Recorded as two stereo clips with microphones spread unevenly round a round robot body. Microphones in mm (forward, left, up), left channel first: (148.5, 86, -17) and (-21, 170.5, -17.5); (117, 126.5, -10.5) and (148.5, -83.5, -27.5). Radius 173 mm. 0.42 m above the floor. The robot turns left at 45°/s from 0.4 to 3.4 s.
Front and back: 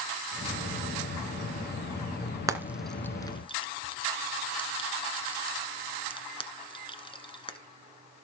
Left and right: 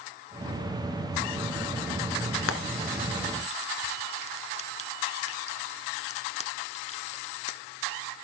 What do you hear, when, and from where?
2.5 s frying: 80° left, 1.8 m; by 7.6 s 40° left, 1.8 m